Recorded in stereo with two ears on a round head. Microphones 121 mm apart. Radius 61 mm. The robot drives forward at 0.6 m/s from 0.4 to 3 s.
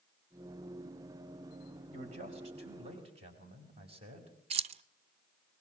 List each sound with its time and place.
1.9 s a man speaking: 50° right (ahead or behind), 4.5 m; by 4.3 s 45° right (ahead or behind), 4.5 m
4.5 s keys jangling: 45° right (ahead or behind), 0.6 m